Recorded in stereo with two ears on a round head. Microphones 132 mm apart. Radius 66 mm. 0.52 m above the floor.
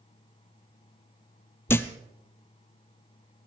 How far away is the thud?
About 0.8 m.